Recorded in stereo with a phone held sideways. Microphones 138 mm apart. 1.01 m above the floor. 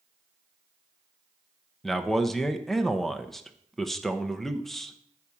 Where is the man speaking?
Centre (ahead or behind), 0.7 m.